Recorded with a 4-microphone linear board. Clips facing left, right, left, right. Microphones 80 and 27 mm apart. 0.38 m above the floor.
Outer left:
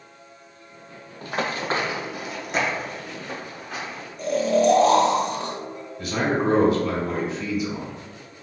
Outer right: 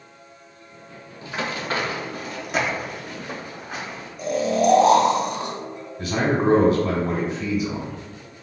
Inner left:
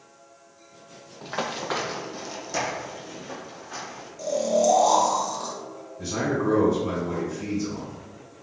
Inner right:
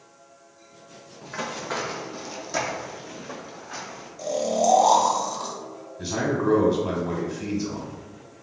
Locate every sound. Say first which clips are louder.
1.2 s running footsteps: outer left 2 dB, inner left 2 dB; 50° left (ahead or behind), 0.5 m; by 4.1 s 20° right (ahead or behind), 1.6 m
4.2 s snoring: outer left 1 dB, inner left 1 dB; 10° right (ahead or behind), 0.7 m
6.0 s a man speaking: outer right 2 dB, inner right 1 dB; 30° right (ahead or behind), 1.2 m